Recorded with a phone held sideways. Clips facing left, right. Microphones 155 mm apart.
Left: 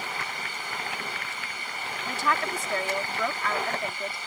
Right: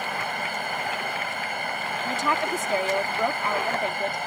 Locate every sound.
0.0 s a fan: 60° right (ahead or behind)
2.0 s a woman speaking: 20° right (ahead or behind)